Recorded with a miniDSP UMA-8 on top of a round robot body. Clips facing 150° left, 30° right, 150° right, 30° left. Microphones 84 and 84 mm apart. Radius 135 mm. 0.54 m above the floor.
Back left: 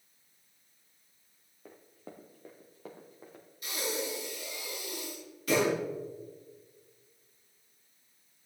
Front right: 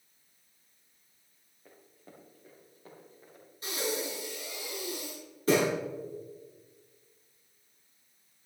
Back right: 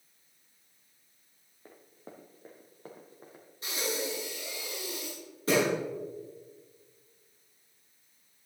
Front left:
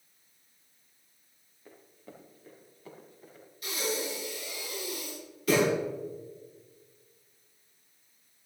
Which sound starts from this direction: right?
Breathing, at 3.6 s.